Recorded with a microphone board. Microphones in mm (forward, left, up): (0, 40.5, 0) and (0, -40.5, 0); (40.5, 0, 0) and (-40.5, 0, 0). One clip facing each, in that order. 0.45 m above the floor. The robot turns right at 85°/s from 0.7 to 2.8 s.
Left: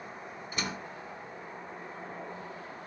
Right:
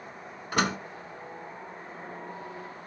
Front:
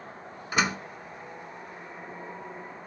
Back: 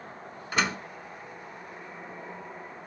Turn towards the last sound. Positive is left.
turn(degrees=95)